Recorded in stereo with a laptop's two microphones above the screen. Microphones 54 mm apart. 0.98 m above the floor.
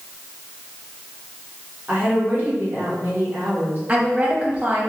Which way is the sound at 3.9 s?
30° right (ahead or behind).